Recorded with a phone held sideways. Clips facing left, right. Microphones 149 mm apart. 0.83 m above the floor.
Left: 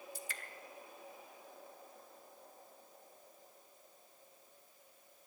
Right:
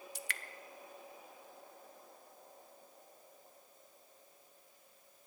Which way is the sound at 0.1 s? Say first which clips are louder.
Right 1 dB; 75° right (ahead or behind).